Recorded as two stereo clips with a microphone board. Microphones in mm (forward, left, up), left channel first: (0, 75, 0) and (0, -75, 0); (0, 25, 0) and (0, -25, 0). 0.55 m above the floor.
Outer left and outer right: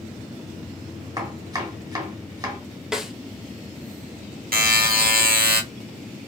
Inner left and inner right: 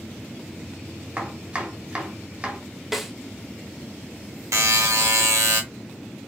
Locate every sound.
1.2 s chopping: 25° right (ahead or behind), 1.2 m
2.9 s a snare drum: 5° right (ahead or behind), 0.9 m
4.5 s a buzzer: 80° right, 0.9 m